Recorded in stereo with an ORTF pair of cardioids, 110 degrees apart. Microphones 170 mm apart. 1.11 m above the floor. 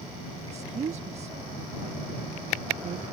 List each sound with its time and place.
0.4 s a woman speaking: 40° right